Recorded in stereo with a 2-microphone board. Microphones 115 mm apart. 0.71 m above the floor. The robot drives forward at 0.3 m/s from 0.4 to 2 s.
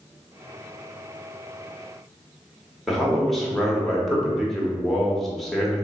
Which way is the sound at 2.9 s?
Centre (ahead or behind).